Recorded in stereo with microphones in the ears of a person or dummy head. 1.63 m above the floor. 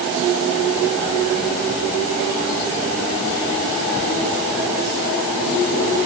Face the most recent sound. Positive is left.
No sound to turn to.